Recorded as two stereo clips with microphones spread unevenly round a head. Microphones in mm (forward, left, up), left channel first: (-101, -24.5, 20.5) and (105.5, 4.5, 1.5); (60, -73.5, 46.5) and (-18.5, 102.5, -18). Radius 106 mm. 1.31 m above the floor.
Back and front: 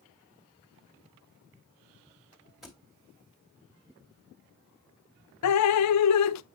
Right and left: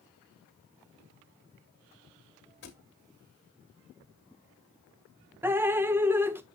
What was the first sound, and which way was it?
A thud, 80° right.